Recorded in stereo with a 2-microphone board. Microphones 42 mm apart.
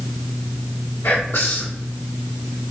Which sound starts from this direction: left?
Whispering, at 1.0 s.